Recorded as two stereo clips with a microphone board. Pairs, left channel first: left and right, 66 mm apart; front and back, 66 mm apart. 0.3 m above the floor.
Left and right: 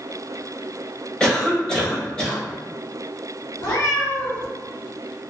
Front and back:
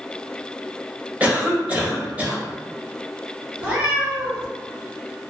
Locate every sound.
1.2 s a cough: 150° left, 0.9 m
3.6 s a cat meowing: 115° left, 1.7 m